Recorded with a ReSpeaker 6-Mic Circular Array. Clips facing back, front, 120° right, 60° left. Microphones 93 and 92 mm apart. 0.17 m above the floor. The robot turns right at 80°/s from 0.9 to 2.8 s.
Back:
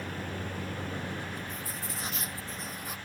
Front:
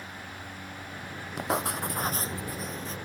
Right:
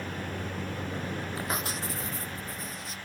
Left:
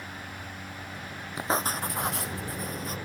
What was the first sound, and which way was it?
A vehicle, 145° right.